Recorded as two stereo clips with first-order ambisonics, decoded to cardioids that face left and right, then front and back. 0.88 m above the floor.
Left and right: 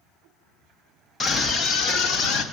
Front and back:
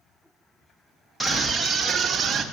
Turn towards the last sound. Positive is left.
turn(degrees=110)